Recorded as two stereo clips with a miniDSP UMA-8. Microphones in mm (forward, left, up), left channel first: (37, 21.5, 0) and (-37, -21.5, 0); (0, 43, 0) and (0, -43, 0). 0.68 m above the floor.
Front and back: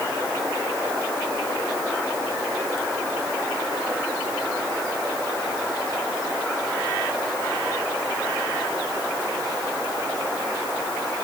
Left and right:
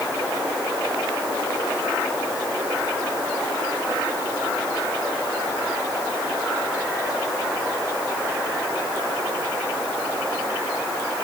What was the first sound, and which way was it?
Only background noise.